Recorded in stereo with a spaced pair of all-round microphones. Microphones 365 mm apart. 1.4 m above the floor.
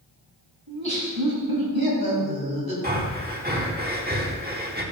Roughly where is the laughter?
Right.